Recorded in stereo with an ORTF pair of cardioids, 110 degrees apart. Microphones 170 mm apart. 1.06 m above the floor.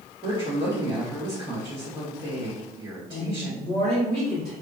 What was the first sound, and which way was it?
A woman speaking, 25° right.